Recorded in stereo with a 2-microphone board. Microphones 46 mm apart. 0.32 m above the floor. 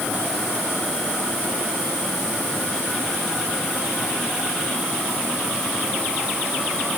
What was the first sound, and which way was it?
Only background noise.